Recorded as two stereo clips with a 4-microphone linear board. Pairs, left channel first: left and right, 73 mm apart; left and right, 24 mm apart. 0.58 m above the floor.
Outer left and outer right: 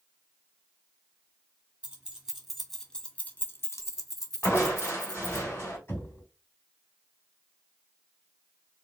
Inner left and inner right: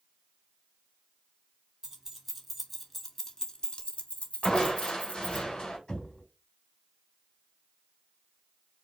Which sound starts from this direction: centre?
Keys jangling, at 1.8 s.